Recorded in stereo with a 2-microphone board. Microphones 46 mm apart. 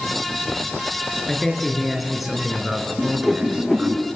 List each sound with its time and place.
1.3 s a man speaking: 5° left (ahead or behind), 4 m; by 4.0 s 30° right (ahead or behind), 3 m
3.0 s a whoosh: centre (ahead or behind), 4.5 m